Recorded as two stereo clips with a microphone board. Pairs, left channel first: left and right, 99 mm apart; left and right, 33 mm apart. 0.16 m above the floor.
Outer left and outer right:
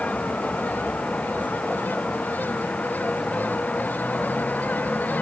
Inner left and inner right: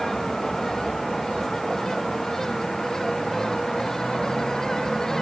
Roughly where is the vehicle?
Centre.